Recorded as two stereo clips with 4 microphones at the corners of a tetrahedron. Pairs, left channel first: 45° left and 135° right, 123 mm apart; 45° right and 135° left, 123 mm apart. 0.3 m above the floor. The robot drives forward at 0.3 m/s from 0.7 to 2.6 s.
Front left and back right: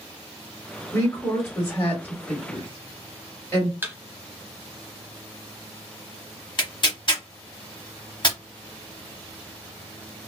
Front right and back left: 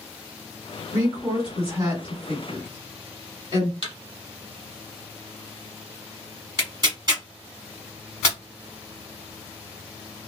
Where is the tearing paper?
90° left, 0.7 m.